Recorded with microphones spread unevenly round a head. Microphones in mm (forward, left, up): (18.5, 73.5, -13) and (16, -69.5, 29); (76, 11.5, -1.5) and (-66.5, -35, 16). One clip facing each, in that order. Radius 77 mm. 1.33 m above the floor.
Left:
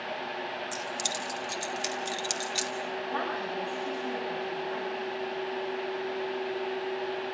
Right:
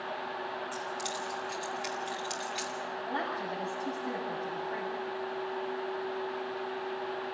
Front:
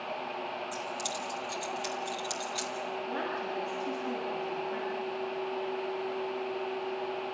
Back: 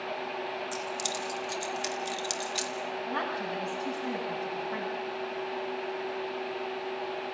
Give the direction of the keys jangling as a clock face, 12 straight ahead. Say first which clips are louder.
Left 1 dB, back 2 dB; 8 o'clock.